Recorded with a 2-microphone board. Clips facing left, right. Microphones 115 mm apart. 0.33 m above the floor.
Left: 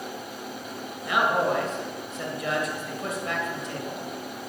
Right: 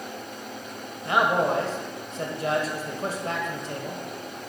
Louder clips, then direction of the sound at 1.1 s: Right 1 dB; 35° right (ahead or behind).